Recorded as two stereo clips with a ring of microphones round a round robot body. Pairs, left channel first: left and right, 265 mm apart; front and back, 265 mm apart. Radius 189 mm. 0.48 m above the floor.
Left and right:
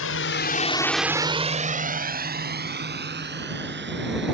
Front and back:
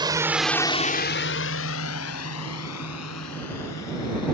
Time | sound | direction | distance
0.0 | a drone | 110° left | ?